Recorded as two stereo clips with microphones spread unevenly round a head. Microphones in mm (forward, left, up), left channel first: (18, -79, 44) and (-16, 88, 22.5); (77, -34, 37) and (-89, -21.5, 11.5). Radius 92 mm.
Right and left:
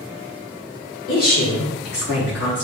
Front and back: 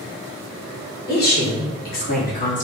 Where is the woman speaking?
35° right, 3 m; by 2.6 s 50° right, 3 m.